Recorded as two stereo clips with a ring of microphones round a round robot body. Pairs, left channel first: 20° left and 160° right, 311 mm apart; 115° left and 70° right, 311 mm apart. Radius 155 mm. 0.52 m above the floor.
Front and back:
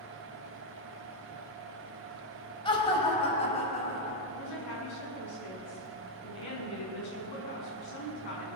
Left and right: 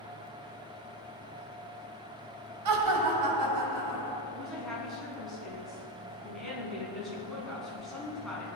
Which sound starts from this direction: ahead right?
Laughter, at 2.6 s.